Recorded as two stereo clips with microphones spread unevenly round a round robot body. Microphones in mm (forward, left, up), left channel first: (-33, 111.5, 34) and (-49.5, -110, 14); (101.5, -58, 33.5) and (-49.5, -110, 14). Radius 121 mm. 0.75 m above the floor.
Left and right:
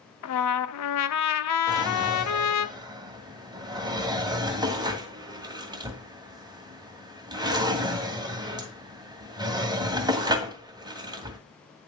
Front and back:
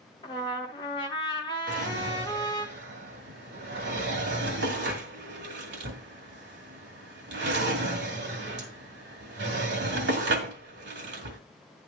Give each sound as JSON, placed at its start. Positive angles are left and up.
{"t": 0.2, "sound": "a trumpet", "azimuth_deg": 90, "distance_m": 0.8}
{"t": 1.7, "sound": "a drawer", "azimuth_deg": -165, "distance_m": 1.9}